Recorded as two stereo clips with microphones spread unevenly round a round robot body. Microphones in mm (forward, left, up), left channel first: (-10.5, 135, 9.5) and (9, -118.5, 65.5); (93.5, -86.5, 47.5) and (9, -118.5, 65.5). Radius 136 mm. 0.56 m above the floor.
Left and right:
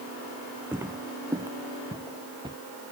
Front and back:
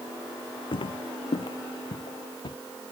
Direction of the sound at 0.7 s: 5° right.